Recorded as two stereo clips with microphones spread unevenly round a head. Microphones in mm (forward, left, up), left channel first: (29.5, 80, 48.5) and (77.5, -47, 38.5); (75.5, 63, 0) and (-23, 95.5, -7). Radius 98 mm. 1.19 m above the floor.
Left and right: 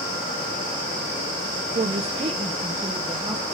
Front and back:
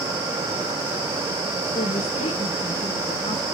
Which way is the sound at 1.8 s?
45° right.